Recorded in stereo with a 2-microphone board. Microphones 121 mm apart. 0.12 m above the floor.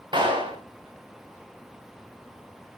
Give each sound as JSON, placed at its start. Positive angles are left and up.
{"t": 0.1, "sound": "a clap", "side_deg": -40, "distance_m": 9.5}